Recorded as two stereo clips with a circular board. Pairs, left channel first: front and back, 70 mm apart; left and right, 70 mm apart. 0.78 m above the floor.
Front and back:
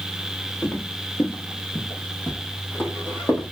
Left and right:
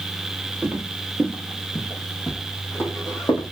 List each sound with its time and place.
0.6 s footsteps: 30° right, 0.9 m; by 3.5 s 60° left, 1.6 m